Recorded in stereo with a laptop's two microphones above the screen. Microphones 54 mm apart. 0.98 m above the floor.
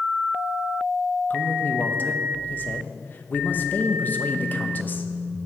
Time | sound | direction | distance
1.3 | a man speaking | 35° left (ahead or behind) | 0.7 m